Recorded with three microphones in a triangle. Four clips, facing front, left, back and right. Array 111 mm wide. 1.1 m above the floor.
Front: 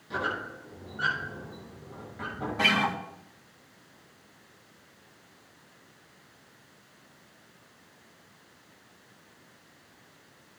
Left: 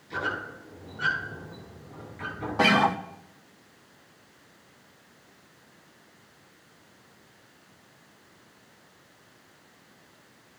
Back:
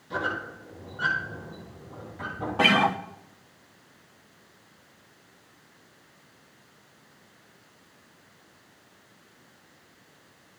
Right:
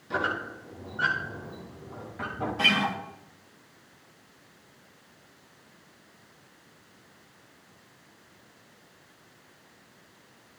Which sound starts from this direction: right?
A squeak, at 0.1 s.